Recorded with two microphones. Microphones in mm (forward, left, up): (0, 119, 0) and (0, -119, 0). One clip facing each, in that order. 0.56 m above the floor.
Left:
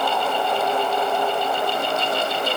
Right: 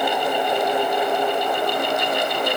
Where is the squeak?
I don't hear a squeak.